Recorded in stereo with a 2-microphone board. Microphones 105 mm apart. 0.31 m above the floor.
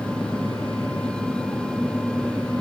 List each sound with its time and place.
Only background noise.